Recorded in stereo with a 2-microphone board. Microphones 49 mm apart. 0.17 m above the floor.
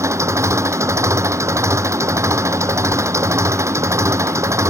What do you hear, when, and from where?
0.0 s an engine running: 80° right